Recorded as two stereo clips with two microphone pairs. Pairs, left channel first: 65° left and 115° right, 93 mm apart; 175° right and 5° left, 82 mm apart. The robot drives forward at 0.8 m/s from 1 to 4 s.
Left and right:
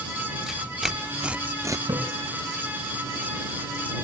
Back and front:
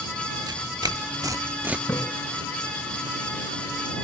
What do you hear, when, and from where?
0.5 s tearing paper: 30° right, 0.9 m; by 1.8 s 75° right, 0.5 m
1.9 s a splash: 125° right, 6 m; by 2.0 s 130° right, 6 m